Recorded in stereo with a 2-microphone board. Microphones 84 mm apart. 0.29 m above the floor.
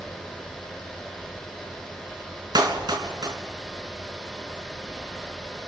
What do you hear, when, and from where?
2.5 s a clap: 55° right (ahead or behind), 3.5 m